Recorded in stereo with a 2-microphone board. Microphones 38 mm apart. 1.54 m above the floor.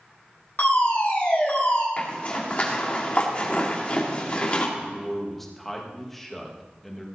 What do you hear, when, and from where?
0.6 s a fire alarm: 50° left (ahead or behind), 5 m
2.0 s a zipper: 35° left (ahead or behind), 2.5 m
4.8 s a man speaking: 5° left (ahead or behind), 2 m